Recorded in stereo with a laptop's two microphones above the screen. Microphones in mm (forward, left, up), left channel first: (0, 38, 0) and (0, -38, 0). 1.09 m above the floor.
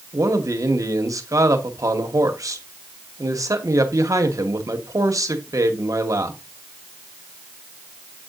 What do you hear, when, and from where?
0.1 s a man speaking: 45° right (ahead or behind), 0.9 m